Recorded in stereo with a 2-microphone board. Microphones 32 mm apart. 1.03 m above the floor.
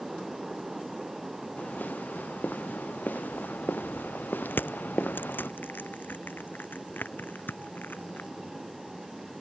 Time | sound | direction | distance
1.6 | footsteps | 65° left (ahead or behind) | ?
4.5 | crushing | 85° left | ?